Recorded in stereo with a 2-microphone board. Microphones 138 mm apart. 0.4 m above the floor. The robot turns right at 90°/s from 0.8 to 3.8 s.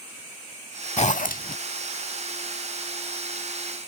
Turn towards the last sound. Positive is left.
turn(degrees=-50)